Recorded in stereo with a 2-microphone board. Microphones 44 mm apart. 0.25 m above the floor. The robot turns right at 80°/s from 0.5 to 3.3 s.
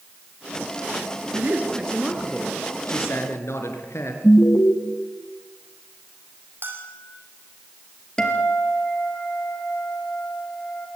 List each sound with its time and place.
1.3 s a man speaking: 65° right, 3.5 m; by 4.1 s 95° left, 3.5 m
4.2 s an alarm: 50° left (ahead or behind), 1.3 m
6.6 s a bell: 50° right (ahead or behind), 3.5 m
8.2 s a guitar: 15° left (ahead or behind), 3 m